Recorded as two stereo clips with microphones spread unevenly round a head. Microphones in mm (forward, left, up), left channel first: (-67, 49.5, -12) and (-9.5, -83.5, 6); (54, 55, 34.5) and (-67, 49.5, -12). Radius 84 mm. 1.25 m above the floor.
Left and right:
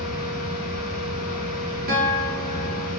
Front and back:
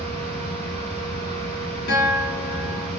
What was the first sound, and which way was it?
A fan, 140° left.